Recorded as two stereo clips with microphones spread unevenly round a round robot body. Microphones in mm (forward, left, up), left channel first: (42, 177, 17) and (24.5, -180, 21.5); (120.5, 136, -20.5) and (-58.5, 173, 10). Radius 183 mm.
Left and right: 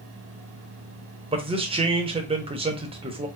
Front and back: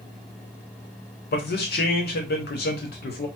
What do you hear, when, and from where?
1.3 s a man speaking: 20° right, 0.8 m